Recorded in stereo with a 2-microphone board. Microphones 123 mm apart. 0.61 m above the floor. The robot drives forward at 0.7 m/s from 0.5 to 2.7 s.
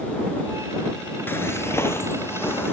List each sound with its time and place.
1.3 s footsteps: 15° left (ahead or behind), 0.5 m; by 2.7 s 20° left (ahead or behind), 2 m